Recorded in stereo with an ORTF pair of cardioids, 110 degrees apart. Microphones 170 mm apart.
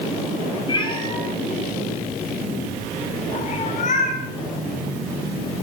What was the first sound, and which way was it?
A cat meowing, 30° left.